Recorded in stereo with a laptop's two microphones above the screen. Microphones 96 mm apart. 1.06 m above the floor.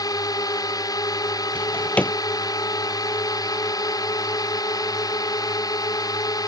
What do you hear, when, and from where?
0.0 s a drone: 40° left (ahead or behind)
1.6 s a drawer: 15° left (ahead or behind)